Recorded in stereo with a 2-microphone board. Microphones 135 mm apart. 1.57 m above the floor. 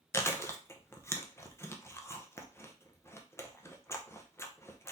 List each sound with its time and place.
0.1 s chewing: 20° left (ahead or behind), 0.7 m